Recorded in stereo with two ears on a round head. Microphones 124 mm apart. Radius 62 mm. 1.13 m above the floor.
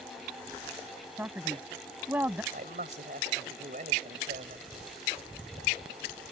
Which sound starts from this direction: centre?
A man speaking, at 1.2 s.